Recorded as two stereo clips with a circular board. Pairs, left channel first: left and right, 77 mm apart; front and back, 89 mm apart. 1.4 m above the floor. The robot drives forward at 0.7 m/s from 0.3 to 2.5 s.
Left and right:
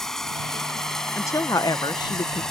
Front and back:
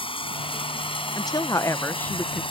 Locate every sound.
0.0 s running water: 5° left
1.1 s a woman speaking: 40° left; by 2.4 s 95° left